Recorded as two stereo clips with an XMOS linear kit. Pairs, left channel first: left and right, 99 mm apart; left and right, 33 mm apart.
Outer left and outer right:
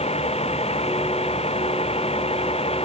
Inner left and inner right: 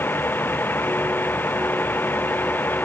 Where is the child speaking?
No child speaking in this recording.